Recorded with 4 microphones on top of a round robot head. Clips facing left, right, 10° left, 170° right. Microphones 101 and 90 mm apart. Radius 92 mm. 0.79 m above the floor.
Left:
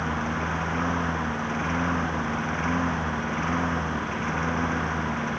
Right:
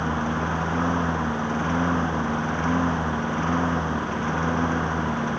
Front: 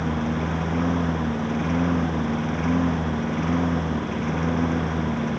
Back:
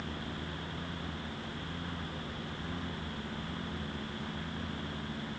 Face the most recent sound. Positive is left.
turn(degrees=-15)